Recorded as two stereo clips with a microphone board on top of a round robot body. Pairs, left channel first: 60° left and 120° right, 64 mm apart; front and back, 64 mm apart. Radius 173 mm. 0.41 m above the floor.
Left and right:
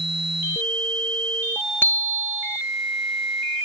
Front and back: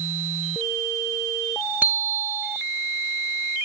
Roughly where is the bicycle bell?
Behind left.